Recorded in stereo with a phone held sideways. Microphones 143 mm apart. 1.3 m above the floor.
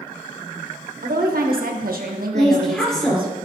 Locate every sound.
1.0 s a woman speaking: 85° right, 1.2 m
2.3 s a woman speaking: 5° left (ahead or behind), 3.5 m